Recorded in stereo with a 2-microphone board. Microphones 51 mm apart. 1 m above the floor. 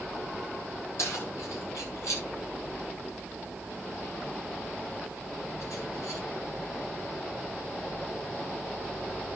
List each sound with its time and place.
1.0 s keys jangling: 75° left (ahead or behind), 7.5 m; by 6.2 s 90° left, 11.5 m